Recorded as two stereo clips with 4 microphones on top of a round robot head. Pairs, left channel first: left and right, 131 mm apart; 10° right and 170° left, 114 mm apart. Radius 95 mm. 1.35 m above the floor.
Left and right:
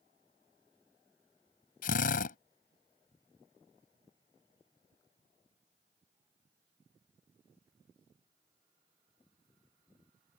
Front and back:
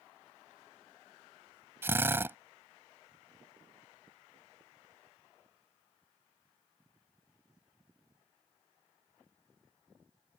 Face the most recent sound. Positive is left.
turn(degrees=105)